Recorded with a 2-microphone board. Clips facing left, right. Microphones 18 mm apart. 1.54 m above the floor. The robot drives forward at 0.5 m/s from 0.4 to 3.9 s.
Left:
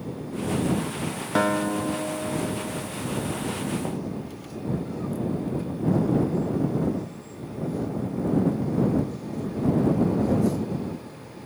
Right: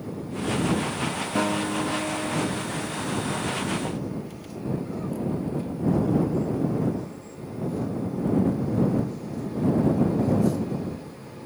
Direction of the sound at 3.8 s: 10° left (ahead or behind).